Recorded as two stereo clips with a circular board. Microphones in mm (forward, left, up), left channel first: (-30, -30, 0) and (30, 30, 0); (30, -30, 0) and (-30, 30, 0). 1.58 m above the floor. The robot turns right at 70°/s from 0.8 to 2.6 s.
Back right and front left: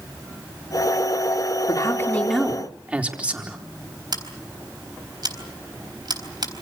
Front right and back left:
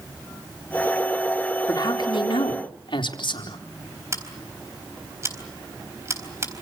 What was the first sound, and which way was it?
A man speaking, 95° right.